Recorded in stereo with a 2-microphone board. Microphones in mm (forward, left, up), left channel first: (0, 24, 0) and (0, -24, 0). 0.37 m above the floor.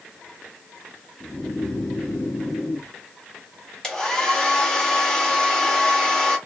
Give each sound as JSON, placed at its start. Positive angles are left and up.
{"t": 1.2, "sound": "snoring", "side_deg": 35, "distance_m": 1.4}
{"t": 3.8, "sound": "a hair dryer", "side_deg": 15, "distance_m": 1.6}